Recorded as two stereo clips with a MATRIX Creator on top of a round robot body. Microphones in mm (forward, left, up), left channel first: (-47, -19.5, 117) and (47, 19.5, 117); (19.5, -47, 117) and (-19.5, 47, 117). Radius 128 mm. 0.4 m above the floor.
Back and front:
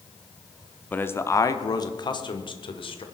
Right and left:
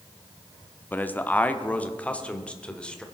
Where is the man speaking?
110° right, 1.0 m; by 3.0 s 145° right, 1.9 m.